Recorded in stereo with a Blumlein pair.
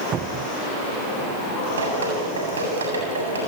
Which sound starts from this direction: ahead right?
A cupboard door, at 0.1 s.